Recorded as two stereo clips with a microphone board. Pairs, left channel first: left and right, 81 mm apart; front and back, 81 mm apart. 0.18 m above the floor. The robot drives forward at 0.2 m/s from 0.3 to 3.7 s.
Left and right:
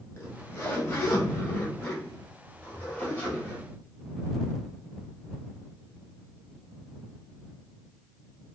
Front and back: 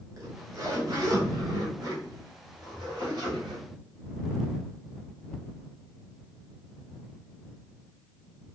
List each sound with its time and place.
0.2 s a zipper: 135° left, 1.2 m; by 3.6 s 155° left, 1.7 m